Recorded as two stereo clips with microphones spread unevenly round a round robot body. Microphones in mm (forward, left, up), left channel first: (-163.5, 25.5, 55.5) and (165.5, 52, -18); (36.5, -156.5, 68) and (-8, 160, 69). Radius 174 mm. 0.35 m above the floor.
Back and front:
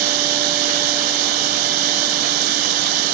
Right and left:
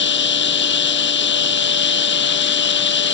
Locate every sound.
0.0 s running water: 25° right